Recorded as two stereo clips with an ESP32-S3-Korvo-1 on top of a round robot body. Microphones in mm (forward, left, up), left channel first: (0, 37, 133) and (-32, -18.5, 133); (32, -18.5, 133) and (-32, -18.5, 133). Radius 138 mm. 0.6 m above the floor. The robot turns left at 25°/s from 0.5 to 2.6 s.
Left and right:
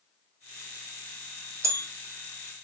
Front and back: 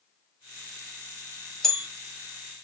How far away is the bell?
About 1.3 m.